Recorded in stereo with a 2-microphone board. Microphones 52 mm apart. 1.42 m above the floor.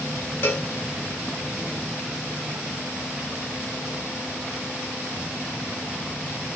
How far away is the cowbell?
About 0.8 m.